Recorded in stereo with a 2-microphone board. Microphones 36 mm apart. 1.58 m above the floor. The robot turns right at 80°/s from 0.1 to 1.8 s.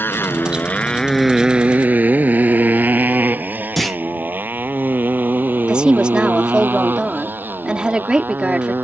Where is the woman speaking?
25° right (ahead or behind).